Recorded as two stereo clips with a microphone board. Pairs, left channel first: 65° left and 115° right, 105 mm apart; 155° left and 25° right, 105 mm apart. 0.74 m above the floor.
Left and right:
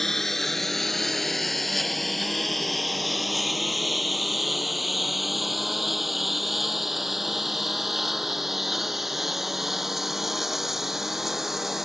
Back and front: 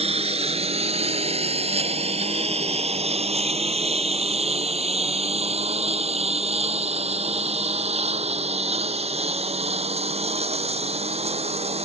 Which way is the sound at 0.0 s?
20° right.